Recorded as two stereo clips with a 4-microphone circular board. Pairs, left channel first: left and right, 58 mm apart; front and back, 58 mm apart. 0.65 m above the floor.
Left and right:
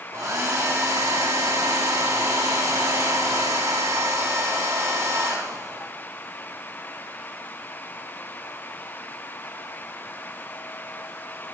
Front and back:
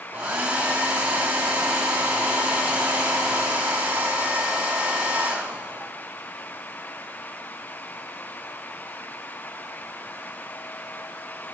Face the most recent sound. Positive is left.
turn(degrees=-110)